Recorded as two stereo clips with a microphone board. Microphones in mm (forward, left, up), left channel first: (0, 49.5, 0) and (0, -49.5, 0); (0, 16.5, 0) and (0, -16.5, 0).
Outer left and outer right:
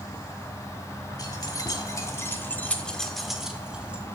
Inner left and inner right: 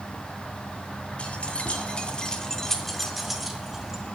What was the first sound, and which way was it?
Keys jangling, 40° left (ahead or behind).